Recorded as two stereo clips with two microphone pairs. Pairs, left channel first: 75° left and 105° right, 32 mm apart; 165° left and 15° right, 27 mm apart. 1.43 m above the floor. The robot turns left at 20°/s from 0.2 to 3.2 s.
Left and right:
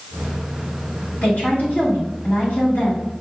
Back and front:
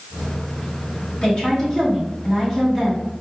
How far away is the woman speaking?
About 2.5 m.